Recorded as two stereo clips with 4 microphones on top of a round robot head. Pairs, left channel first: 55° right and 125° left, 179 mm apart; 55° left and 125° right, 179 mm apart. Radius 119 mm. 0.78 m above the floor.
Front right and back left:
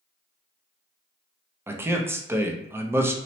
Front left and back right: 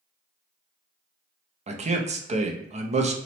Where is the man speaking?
165° right, 0.6 m.